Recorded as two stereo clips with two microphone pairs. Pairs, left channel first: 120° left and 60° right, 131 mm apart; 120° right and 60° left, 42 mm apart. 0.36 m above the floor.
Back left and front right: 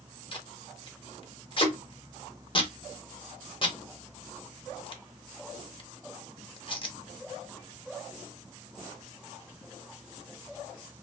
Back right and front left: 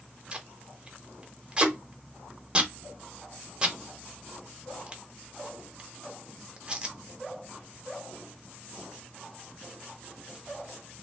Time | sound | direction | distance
0.3 | tape being pulled | 110° left | 0.6 m